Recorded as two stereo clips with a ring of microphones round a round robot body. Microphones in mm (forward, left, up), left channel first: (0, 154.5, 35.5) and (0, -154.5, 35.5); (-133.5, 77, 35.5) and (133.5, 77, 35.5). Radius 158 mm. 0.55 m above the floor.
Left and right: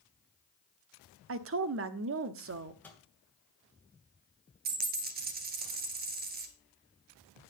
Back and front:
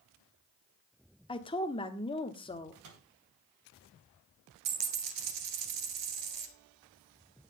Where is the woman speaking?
115° right, 1.0 m.